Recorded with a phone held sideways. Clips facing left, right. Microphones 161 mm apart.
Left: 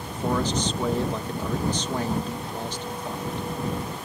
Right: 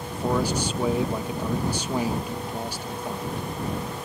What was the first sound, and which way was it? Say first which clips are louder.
A man speaking: right 1 dB; 10° right (ahead or behind).